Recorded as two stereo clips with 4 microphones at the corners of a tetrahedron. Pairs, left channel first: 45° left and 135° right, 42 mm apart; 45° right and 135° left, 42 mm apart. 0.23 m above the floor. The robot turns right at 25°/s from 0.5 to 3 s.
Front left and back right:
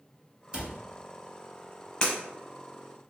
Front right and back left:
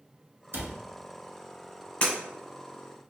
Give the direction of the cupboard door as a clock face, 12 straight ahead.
7 o'clock.